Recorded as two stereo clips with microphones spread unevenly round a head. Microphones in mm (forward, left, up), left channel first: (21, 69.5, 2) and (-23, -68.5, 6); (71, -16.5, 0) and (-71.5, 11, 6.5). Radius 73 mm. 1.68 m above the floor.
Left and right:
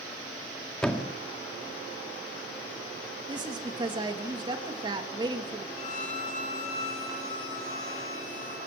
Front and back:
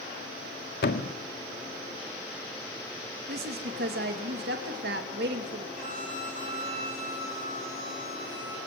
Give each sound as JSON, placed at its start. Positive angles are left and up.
{"t": 0.8, "sound": "a thud", "azimuth_deg": -15, "distance_m": 1.9}
{"t": 3.3, "sound": "a woman speaking", "azimuth_deg": -170, "distance_m": 3.0}
{"t": 5.8, "sound": "a violin", "azimuth_deg": 120, "distance_m": 7.5}